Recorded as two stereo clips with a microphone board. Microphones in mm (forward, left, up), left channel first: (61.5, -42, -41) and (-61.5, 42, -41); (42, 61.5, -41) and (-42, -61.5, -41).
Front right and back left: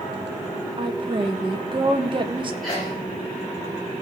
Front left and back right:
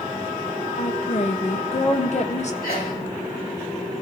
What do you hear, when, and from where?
0.8 s a woman speaking: 90° left, 1.3 m
2.6 s a sneeze: 55° left, 6.5 m